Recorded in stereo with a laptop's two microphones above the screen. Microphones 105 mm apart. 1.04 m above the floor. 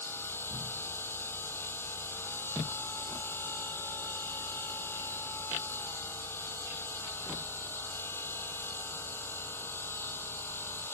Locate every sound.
0.0 s a machine running: 20° left (ahead or behind)